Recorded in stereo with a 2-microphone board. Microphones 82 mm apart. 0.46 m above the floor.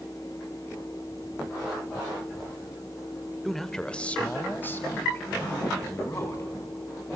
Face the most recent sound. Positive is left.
turn(degrees=35)  # may be behind; listen again after turning